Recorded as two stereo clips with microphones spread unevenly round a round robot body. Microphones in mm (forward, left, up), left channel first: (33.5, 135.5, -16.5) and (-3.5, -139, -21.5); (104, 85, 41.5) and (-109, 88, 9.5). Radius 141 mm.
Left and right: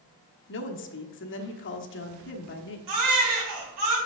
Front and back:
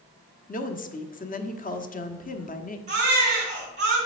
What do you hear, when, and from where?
0.5 s a woman speaking: 45° left, 1.1 m
2.9 s a baby crying: 115° right, 3 m